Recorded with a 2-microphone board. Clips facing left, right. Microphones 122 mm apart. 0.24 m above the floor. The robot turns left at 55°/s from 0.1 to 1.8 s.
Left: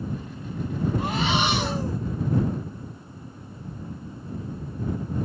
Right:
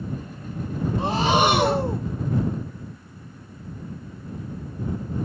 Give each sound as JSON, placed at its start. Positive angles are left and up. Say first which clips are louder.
{"t": 1.0, "sound": "breathing", "louder": "right 8 dB", "azimuth_deg": -30}